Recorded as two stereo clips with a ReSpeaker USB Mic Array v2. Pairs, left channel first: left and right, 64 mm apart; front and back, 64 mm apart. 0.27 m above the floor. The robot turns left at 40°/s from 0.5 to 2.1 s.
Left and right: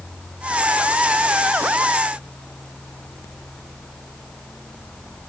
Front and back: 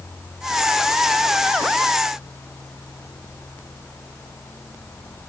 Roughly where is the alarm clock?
I don't hear an alarm clock.